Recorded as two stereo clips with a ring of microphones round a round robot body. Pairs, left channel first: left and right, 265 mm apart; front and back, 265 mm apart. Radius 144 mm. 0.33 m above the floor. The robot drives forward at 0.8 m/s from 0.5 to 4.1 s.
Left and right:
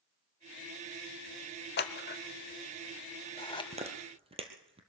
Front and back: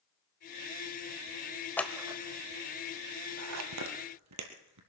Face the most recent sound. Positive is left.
turn(degrees=-160)